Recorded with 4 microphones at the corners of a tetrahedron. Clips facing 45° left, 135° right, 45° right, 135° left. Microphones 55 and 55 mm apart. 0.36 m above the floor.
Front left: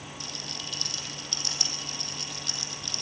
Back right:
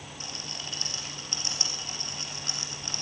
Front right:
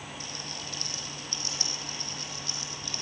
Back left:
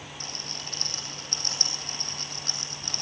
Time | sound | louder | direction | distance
0.2 | a rattle | back right 1 dB, even | 170° left | 4 m